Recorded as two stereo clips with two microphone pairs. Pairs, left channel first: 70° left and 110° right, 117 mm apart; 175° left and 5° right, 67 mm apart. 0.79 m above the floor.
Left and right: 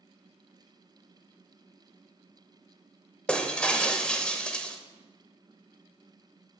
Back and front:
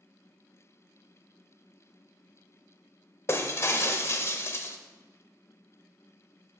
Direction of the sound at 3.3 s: 150° left.